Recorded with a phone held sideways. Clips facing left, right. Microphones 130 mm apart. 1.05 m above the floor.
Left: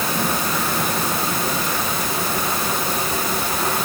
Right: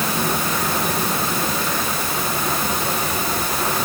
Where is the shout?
I don't hear a shout.